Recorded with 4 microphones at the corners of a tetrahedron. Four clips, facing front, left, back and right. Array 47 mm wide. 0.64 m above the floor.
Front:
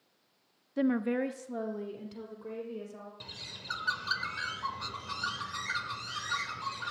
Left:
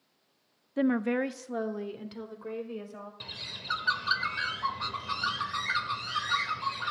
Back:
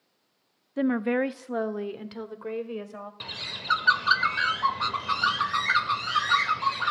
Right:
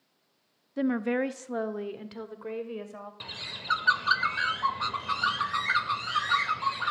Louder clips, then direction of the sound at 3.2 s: Right 2 dB, back 12 dB; 155° right.